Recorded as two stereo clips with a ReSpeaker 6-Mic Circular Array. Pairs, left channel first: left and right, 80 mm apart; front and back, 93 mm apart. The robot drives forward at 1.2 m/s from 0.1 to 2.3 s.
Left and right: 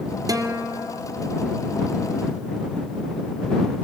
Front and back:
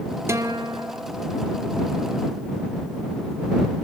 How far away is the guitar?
About 1.4 m.